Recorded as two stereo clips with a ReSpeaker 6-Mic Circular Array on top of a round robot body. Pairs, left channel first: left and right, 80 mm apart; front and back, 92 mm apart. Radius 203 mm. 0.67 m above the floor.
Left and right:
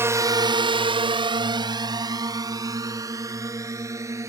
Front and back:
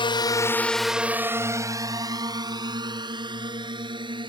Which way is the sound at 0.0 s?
30° right.